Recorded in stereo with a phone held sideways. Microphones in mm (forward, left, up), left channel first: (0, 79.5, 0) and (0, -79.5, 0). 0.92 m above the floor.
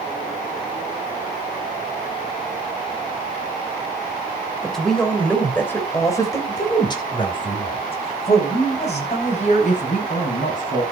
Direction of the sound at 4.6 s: Centre (ahead or behind).